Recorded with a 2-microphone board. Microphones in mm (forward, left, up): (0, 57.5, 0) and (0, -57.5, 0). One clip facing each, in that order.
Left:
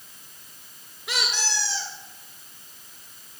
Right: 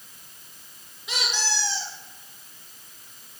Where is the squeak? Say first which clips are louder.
Even; 60° left (ahead or behind), 3.5 m.